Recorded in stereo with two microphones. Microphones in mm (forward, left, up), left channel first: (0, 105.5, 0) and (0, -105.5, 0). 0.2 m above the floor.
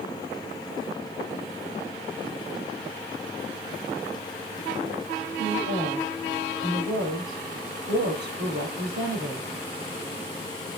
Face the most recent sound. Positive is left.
turn(degrees=-55)  # may be behind; listen again after turning